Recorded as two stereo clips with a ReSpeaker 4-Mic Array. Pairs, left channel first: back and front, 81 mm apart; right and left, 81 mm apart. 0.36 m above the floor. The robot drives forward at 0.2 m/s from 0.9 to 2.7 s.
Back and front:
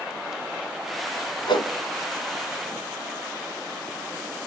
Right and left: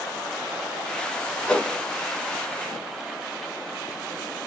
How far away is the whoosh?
About 0.7 m.